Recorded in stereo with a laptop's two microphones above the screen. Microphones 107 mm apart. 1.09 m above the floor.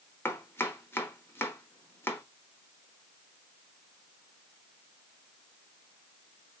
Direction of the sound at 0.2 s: 25° left (ahead or behind).